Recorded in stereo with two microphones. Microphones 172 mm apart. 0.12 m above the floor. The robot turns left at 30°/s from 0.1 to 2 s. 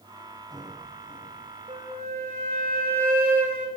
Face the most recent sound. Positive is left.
turn(degrees=-50)  # may be behind; listen again after turning